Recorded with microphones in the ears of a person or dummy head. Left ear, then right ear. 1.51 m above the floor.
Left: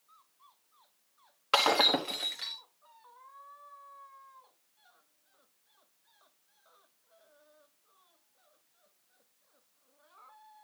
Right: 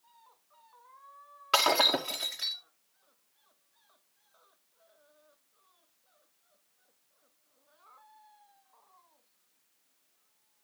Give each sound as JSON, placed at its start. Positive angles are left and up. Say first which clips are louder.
{"t": 1.5, "sound": "breaking glass", "louder": "even", "side_deg": 0, "distance_m": 1.0}